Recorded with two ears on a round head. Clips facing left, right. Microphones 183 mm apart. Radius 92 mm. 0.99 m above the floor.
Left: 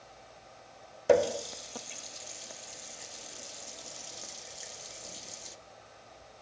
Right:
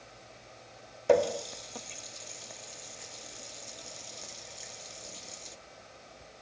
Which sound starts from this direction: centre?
A running tap, at 1.1 s.